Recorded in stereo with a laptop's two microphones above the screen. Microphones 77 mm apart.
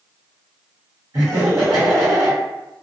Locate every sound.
1.1 s laughter: 50° right (ahead or behind), 1.1 m